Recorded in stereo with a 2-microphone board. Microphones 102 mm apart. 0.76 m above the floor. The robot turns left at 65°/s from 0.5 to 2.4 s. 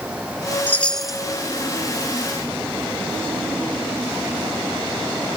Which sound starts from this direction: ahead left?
A chime, at 0.7 s.